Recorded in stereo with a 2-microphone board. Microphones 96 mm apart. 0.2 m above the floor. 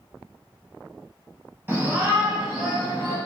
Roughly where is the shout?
Right.